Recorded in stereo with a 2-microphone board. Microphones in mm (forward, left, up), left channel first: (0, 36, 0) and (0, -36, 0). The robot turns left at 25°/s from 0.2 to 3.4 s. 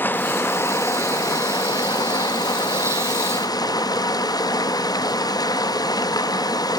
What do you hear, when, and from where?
0.0 s running water: 150° left, 0.7 m; by 6.8 s 70° left, 0.7 m